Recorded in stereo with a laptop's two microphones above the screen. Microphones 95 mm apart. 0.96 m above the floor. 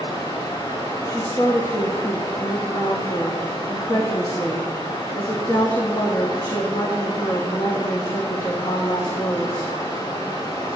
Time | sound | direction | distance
0.0 | running water | 50° left (ahead or behind) | 2.5 m
1.1 | a woman speaking | 45° left (ahead or behind) | 1.5 m